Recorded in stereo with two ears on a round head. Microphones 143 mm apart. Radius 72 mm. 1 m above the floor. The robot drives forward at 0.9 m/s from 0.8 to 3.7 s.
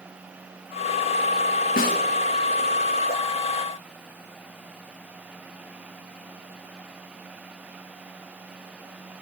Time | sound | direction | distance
1.8 | a snare drum | 55° left (ahead or behind) | 1.1 m